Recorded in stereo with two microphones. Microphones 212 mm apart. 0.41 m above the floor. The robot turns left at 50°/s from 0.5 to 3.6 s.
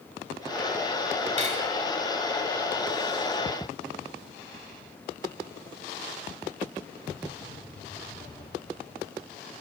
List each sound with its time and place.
1.4 s cutlery clinking: 30° right (ahead or behind), 1.5 m; by 1.7 s 45° right (ahead or behind), 1.5 m